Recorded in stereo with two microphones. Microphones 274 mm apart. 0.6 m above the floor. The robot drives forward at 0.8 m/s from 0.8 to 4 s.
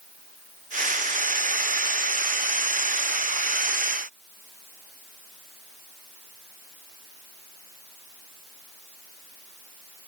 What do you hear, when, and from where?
Only background noise.